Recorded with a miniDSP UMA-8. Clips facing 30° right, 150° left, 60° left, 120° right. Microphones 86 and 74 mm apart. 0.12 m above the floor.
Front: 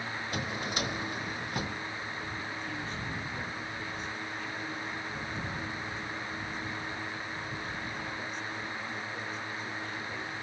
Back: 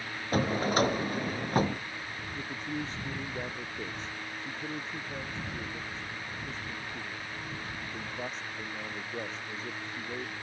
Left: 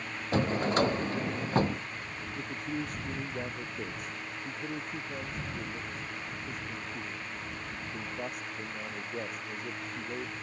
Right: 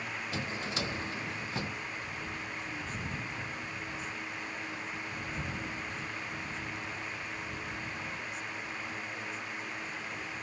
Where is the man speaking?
95° left.